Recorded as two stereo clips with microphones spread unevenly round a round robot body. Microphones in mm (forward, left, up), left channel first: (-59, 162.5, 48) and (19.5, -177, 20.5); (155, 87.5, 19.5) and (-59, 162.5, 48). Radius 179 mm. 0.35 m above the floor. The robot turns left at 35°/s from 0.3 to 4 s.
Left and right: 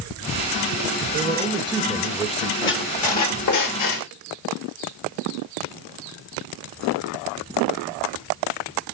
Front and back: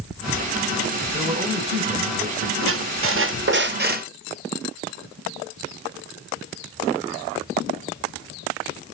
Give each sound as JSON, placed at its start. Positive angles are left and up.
{"t": 1.1, "sound": "a man speaking", "azimuth_deg": -120, "distance_m": 1.2}
{"t": 2.6, "sound": "a squeak", "azimuth_deg": 160, "distance_m": 0.9}